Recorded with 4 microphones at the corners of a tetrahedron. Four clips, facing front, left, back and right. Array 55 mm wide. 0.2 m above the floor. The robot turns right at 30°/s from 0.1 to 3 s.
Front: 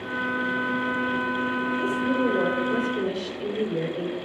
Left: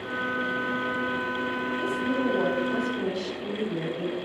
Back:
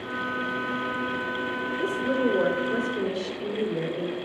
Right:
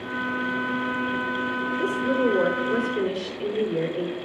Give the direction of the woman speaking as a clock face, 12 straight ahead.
5 o'clock.